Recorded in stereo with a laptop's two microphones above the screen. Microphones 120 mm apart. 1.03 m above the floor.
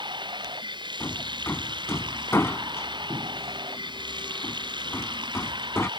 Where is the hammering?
20° left (ahead or behind).